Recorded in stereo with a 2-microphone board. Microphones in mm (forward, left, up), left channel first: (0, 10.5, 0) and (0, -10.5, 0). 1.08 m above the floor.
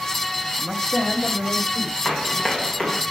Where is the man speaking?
15° left (ahead or behind), 1.3 m; by 1.9 s 30° left (ahead or behind), 3.5 m.